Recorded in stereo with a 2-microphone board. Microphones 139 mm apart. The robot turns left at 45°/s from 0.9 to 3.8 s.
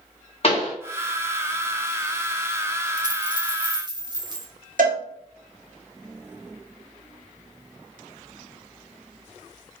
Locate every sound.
0.4 s a pop: 45° left (ahead or behind), 1.1 m
3.0 s a dropped coin: 70° right, 0.6 m; by 4.5 s 105° right, 0.6 m
4.8 s a cowbell: 70° right (ahead or behind), 0.9 m